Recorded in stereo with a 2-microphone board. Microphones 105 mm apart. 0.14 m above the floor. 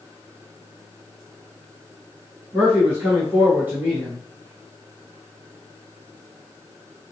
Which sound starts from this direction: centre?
A man speaking, at 2.5 s.